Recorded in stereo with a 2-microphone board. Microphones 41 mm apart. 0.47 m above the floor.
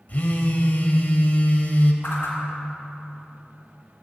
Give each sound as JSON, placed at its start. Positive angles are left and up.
{"t": 0.1, "sound": "a phone buzzing", "side_deg": 45, "distance_m": 0.8}
{"t": 2.0, "sound": "a whoosh", "side_deg": 65, "distance_m": 1.6}